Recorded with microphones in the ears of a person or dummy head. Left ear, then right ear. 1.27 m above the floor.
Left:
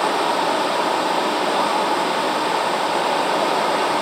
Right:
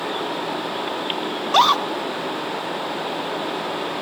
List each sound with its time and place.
0.0 s running water: 30° left (ahead or behind), 1.0 m
1.4 s a scream: 45° right (ahead or behind), 0.9 m